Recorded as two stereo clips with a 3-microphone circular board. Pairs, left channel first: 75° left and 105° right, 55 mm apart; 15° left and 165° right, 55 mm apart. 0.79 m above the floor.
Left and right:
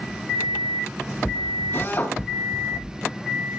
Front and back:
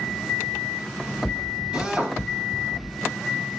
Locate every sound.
1.7 s a drill: 120° left, 4 m